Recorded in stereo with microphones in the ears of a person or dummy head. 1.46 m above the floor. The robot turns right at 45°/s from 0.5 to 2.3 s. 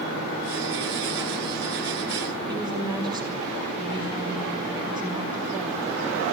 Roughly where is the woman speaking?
Right.